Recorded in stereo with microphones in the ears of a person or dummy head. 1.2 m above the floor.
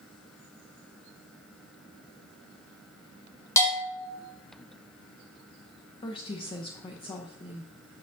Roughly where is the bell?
Centre.